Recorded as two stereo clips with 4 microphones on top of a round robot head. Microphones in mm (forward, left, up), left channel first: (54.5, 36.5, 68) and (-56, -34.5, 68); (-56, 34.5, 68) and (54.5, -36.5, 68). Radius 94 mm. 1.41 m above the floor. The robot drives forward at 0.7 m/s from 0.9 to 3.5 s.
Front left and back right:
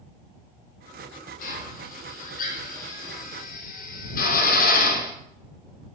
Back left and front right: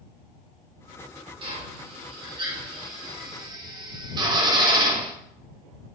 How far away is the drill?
About 5 m.